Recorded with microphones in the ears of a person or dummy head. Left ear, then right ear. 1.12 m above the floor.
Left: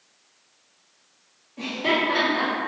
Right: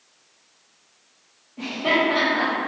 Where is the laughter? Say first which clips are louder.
Right 2 dB; 25° left (ahead or behind), 0.6 m.